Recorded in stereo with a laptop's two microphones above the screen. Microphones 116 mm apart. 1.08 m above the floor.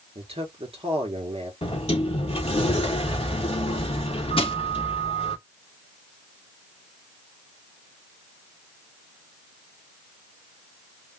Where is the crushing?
50° left (ahead or behind), 1.2 m.